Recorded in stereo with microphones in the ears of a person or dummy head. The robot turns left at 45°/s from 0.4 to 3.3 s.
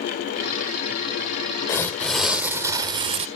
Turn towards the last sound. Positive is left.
turn(degrees=-50)